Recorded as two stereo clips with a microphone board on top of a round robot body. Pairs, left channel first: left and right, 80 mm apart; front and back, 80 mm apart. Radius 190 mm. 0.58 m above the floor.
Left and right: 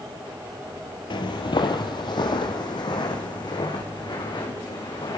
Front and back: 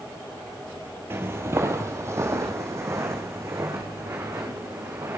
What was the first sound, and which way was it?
Footsteps, 115° left.